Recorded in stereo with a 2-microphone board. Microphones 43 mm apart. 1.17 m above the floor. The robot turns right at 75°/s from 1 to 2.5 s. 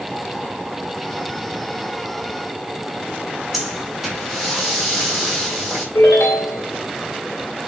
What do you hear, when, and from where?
3.5 s breathing: 5° right (ahead or behind), 3 m
6.0 s a ringtone: 65° left (ahead or behind), 2 m